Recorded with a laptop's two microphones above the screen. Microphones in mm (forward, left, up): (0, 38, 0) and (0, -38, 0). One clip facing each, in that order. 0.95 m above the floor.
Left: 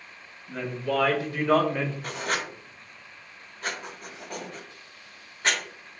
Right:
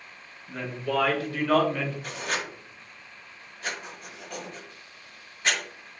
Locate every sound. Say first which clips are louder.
0.5 s a woman speaking: left 1 dB; 10° left (ahead or behind), 1.4 m; by 1.9 s 30° left (ahead or behind), 0.9 m
2.0 s writing: left 2 dB; 45° left (ahead or behind), 1.3 m